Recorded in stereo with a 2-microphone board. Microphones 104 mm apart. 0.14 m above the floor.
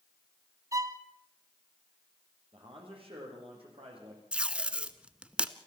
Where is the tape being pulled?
10° right (ahead or behind), 0.8 m.